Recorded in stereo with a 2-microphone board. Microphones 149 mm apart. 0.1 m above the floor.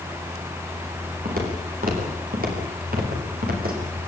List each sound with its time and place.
1.2 s footsteps: 75° right (ahead or behind), 8.5 m; by 4.0 s 85° right, 8 m